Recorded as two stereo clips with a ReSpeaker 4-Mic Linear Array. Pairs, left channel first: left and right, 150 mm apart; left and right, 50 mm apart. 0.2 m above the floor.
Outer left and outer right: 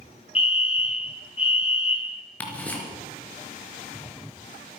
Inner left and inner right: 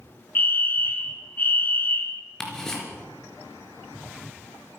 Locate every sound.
0.3 s a fire alarm: 40° left (ahead or behind), 2.5 m
2.4 s ticking: 10° left (ahead or behind), 3.5 m